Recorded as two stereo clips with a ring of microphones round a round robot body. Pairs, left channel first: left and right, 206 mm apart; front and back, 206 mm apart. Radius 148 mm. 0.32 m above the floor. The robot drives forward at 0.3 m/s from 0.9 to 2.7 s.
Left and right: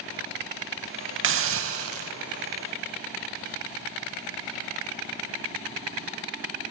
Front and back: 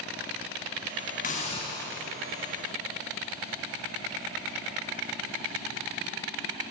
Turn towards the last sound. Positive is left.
turn(degrees=-105)